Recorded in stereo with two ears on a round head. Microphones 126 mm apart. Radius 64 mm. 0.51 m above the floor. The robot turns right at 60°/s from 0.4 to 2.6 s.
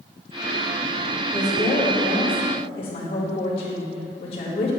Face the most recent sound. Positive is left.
turn(degrees=130)